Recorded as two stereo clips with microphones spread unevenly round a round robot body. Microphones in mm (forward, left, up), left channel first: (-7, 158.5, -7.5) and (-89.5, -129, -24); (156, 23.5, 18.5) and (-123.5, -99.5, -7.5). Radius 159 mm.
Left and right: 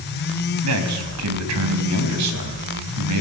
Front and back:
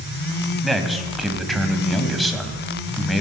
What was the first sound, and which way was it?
A man speaking, 65° right.